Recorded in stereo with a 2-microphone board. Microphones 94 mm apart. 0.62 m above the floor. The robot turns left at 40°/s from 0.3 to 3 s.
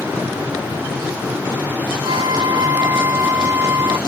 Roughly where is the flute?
Behind right.